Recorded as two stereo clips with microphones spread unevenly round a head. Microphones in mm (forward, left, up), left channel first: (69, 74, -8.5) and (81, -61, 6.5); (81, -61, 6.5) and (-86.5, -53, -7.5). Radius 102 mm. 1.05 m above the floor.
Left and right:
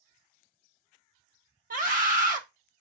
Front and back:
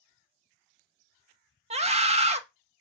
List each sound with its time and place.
1.7 s a scream: 135° right, 1.4 m